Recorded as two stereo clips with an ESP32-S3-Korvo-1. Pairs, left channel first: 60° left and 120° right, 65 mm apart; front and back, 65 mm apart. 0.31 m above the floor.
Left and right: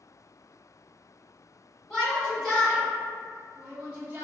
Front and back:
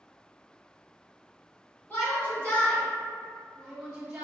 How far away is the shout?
About 1.7 m.